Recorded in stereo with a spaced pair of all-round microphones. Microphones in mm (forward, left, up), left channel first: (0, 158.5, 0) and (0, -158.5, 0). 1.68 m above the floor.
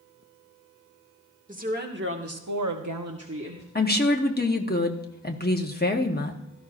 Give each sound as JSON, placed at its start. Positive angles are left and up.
{"t": 1.5, "sound": "a woman speaking", "side_deg": -25, "distance_m": 1.9}
{"t": 3.8, "sound": "a woman speaking", "side_deg": 30, "distance_m": 1.0}